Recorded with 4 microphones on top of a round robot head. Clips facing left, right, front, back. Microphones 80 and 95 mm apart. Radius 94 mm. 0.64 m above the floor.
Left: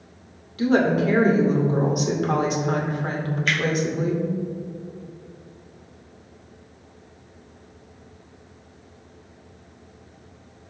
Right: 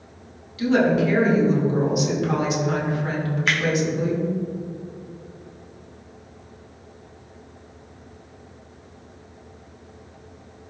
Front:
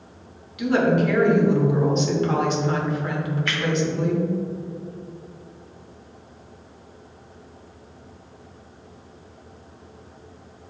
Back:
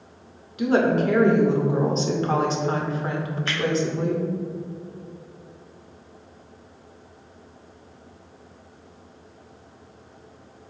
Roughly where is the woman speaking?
Behind left.